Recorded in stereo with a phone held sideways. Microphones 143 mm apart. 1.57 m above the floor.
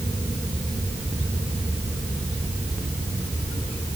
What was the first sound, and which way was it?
Only background noise.